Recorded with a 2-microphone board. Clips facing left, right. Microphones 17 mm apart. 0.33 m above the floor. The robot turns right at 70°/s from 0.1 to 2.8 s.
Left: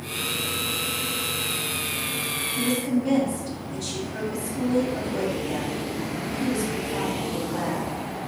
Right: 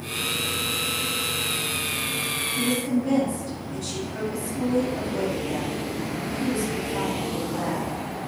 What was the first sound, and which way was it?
A woman speaking, 50° left (ahead or behind).